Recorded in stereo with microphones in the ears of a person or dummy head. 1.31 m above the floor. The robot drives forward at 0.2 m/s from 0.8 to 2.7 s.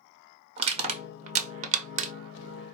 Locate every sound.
0.6 s crushing: 30° right (ahead or behind), 0.8 m; by 2.1 s 40° right (ahead or behind), 0.6 m